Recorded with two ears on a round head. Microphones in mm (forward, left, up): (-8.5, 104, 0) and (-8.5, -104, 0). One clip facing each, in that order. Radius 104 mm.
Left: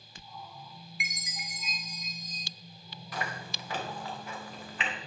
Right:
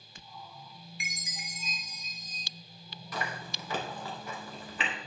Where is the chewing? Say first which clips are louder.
Even; 90° right, 2.5 m.